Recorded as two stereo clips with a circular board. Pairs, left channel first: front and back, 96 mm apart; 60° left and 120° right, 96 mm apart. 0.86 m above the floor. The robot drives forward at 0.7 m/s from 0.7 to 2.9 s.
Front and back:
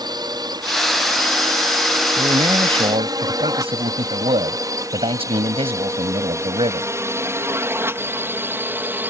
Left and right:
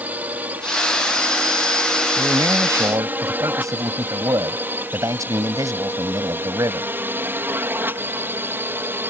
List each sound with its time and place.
0.0 s a drone: 175° left; by 9.1 s 145° right
2.2 s a man speaking: 170° right